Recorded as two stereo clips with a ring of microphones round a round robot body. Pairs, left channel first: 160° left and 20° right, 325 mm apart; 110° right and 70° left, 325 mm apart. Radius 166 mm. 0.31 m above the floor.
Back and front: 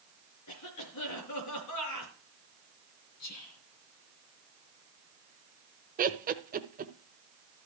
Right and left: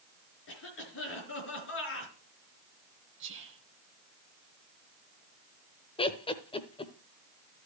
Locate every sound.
0.5 s a cough: 165° right, 4.5 m
3.2 s whispering: 120° left, 2.5 m
6.0 s laughter: 55° right, 1.0 m